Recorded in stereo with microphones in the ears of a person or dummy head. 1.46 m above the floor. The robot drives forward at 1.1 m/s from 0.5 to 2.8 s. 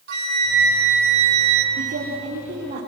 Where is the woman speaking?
55° right (ahead or behind), 3.5 m; by 2.8 s 40° right (ahead or behind), 4 m.